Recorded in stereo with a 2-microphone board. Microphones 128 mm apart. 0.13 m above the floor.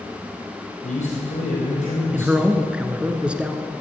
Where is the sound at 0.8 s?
65° left (ahead or behind), 4 m.